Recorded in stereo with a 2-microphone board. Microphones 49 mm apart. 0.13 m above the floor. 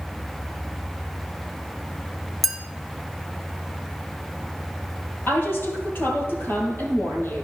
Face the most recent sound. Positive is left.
turn(degrees=45)  # may be behind; listen again after turning